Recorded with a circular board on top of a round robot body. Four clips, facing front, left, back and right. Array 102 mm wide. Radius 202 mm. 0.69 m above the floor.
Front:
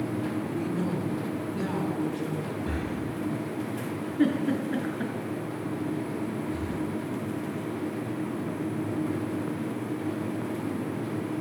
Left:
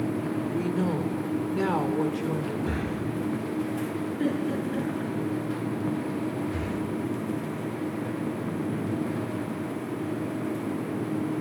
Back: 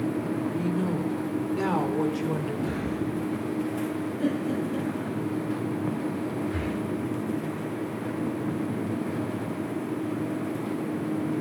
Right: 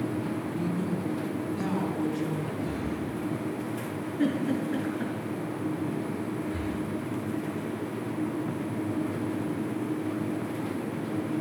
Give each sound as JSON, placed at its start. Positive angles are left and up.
{"t": 0.5, "sound": "a woman speaking", "azimuth_deg": 85, "distance_m": 2.5}
{"t": 2.7, "sound": "breathing", "azimuth_deg": 70, "distance_m": 5.0}
{"t": 4.2, "sound": "a giggle", "azimuth_deg": -10, "distance_m": 6.0}
{"t": 6.5, "sound": "breathing", "azimuth_deg": 165, "distance_m": 1.6}